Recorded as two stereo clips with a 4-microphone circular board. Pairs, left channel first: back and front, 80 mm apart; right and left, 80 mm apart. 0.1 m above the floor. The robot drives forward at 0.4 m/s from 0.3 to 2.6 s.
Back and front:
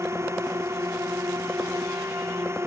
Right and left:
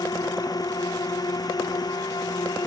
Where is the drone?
55° right.